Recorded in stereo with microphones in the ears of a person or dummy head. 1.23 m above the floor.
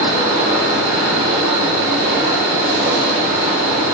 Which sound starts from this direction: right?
A machine running, at 0.0 s.